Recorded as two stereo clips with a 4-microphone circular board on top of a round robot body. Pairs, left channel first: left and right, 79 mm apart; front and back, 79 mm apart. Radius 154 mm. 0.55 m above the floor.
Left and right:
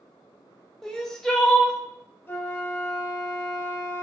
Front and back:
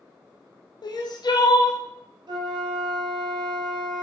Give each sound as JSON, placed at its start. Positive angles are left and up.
{"t": 0.8, "sound": "crying", "azimuth_deg": 5, "distance_m": 0.6}
{"t": 2.3, "sound": "a flute", "azimuth_deg": 150, "distance_m": 0.6}